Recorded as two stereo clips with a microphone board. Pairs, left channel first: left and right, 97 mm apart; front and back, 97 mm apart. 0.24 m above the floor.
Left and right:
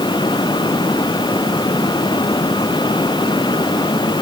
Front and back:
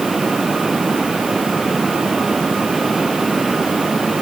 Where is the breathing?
No breathing in this recording.